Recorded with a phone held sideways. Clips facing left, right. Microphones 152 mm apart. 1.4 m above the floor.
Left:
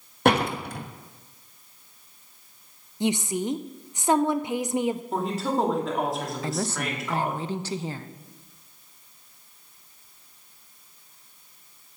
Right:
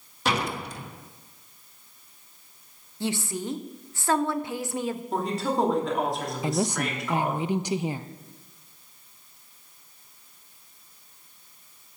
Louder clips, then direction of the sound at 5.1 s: Even; centre (ahead or behind).